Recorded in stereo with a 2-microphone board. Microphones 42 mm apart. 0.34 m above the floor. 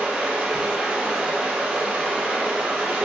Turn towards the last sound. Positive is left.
turn(degrees=-30)  # may be behind; listen again after turning